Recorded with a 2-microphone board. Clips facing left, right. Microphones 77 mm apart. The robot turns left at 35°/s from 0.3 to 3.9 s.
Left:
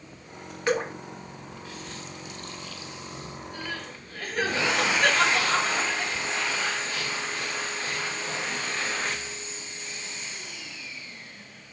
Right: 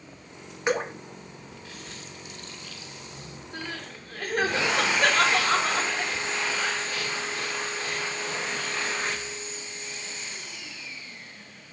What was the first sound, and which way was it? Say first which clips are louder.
Dripping: even; 20° right (ahead or behind).